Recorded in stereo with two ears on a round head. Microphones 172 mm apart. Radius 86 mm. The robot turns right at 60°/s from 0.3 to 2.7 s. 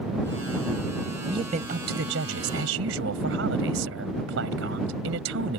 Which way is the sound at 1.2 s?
160° right.